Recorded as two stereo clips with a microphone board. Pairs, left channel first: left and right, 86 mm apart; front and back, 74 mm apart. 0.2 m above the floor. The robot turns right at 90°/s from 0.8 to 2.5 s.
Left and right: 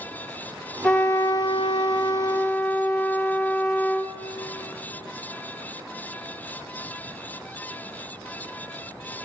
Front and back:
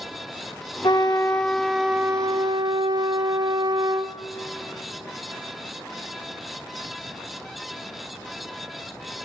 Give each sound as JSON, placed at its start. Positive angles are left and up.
{"t": 0.8, "sound": "a trumpet", "azimuth_deg": 5, "distance_m": 0.8}